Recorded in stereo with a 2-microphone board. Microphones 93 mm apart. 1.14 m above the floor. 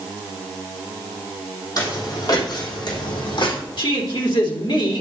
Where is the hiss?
No hiss in this recording.